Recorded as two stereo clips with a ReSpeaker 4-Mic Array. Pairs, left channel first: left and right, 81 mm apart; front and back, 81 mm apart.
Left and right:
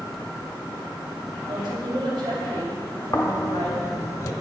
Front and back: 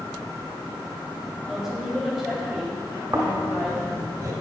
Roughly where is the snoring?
Behind left.